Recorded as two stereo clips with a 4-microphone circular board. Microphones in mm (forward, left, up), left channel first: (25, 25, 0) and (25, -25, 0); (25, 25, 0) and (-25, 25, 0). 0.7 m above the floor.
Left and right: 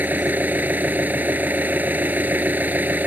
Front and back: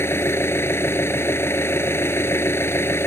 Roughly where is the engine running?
Ahead right.